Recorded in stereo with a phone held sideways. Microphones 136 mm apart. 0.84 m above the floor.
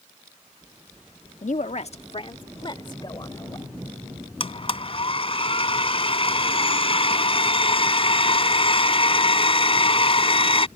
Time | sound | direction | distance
1.4 | a woman speaking | 65° left (ahead or behind) | ?
4.4 | a blender | 45° left (ahead or behind) | ?